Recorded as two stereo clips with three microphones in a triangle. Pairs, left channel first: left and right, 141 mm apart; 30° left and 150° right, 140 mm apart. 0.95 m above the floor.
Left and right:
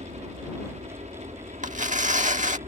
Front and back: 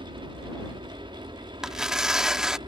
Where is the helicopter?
105° right; by 2.7 s 100° right.